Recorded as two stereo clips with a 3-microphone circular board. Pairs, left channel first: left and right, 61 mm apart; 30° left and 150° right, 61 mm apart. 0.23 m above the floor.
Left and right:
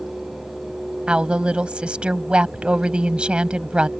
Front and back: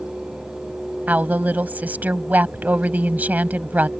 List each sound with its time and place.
1.1 s a woman speaking: 140° right